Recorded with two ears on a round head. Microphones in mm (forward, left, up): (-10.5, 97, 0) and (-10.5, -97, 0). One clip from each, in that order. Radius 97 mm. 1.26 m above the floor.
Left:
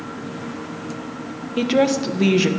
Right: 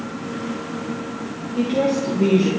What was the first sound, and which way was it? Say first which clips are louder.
A woman speaking: left 2 dB; 60° left (ahead or behind).